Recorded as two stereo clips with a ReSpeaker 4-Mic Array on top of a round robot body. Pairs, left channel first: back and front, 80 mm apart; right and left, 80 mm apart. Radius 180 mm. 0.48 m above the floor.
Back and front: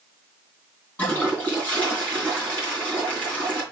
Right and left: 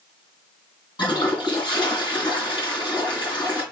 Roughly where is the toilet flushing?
Right.